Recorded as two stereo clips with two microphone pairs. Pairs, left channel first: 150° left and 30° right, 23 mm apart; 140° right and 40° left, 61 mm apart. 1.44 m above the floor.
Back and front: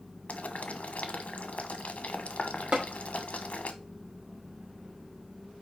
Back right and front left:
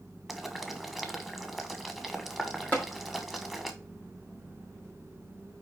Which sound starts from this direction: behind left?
Boiling, at 0.3 s.